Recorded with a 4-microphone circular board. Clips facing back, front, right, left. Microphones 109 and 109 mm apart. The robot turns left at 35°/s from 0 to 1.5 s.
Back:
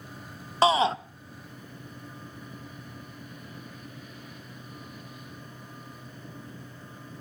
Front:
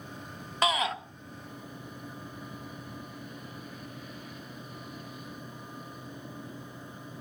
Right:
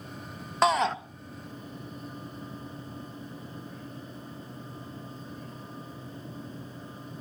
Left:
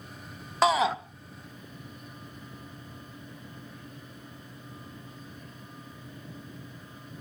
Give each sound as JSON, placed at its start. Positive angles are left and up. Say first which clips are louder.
{"t": 0.6, "sound": "a shout", "louder": "back 7 dB, left 1 dB", "azimuth_deg": 180, "distance_m": 0.6}